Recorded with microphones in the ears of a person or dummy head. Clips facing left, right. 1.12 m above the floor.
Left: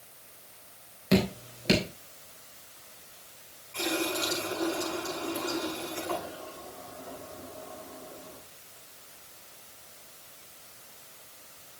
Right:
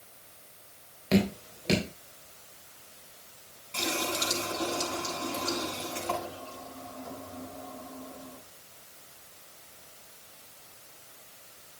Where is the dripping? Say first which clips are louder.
Even; 10° left (ahead or behind), 3.5 m.